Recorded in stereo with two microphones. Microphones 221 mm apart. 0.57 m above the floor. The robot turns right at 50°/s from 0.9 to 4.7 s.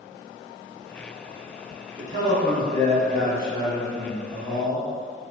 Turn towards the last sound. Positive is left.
turn(degrees=20)